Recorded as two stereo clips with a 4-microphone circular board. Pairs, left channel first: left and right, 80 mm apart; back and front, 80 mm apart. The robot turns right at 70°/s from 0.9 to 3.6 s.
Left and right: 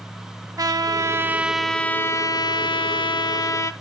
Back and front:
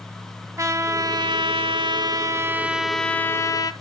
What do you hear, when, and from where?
0.6 s a trumpet: 50° right, 0.7 m; by 3.7 s 140° left, 0.7 m